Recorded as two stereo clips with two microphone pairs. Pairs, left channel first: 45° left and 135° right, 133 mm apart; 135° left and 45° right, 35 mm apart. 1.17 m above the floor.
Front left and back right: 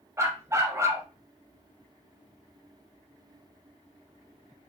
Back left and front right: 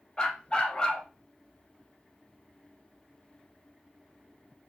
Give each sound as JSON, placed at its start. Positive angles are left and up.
{"t": 0.2, "sound": "a dog barking", "azimuth_deg": 175, "distance_m": 0.6}